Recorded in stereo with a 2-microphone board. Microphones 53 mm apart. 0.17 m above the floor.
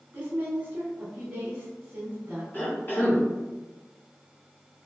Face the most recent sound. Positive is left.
turn(degrees=40)  # may be behind; listen again after turning